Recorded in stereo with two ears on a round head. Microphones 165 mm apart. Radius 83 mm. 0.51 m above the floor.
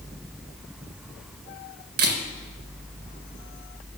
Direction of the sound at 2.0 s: 55° right (ahead or behind).